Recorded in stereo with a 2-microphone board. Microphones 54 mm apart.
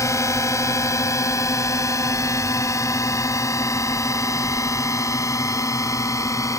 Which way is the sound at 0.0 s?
70° left (ahead or behind).